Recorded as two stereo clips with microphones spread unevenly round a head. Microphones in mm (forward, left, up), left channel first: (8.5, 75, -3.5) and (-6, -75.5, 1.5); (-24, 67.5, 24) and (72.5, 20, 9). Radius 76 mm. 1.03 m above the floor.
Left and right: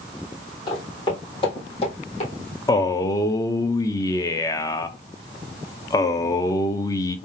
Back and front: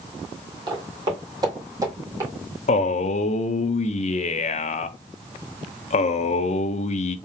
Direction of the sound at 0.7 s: 20° left.